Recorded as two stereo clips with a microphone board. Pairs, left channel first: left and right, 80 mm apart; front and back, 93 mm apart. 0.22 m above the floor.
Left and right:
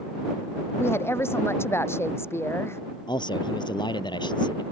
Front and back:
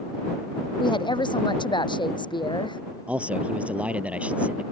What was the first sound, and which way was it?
A woman speaking, 30° left.